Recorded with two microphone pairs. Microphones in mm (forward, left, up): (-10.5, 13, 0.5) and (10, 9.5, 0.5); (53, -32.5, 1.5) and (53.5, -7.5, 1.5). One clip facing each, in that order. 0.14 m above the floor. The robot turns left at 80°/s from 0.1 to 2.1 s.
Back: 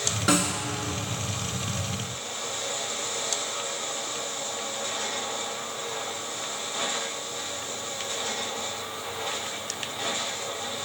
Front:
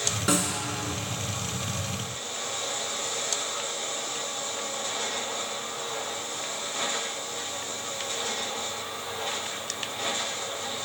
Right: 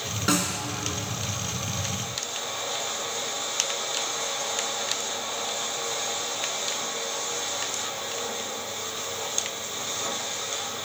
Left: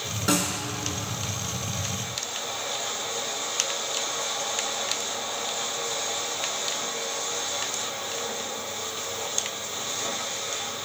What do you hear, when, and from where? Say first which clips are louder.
0.3 s a snare drum: back 3 dB, even; 135° right, 1.1 m; by 0.6 s 165° right, 1.1 m